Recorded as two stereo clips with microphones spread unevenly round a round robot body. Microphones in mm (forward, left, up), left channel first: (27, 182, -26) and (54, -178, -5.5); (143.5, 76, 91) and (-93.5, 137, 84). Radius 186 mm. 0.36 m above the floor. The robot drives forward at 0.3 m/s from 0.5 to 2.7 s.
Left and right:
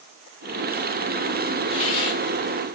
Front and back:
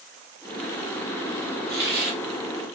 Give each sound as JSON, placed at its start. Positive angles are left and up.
{"t": 1.7, "sound": "a hiss", "azimuth_deg": 165, "distance_m": 1.3}